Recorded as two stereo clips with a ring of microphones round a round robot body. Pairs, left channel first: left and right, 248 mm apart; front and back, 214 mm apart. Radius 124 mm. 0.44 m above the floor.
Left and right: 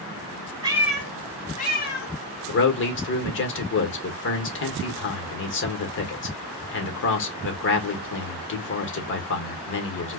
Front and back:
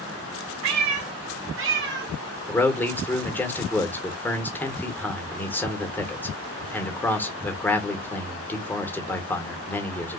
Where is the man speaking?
80° left, 1.1 m.